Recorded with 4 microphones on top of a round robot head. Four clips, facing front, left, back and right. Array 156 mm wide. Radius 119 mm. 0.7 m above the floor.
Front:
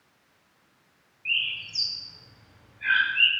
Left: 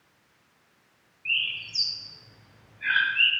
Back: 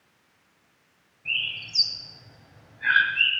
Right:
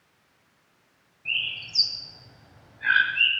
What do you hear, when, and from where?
1.2 s a bird: 135° right, 1.7 m